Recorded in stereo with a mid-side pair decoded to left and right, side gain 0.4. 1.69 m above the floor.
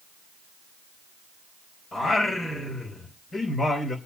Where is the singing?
45° left, 4 m.